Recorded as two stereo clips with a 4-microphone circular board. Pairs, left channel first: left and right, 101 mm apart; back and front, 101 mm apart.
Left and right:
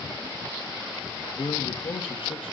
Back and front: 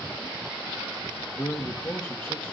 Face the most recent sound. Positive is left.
turn(degrees=115)